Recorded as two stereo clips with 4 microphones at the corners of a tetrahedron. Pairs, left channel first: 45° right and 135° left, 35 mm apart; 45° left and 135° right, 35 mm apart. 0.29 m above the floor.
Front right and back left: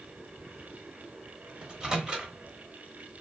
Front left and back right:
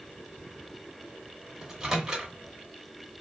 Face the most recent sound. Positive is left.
turn(degrees=165)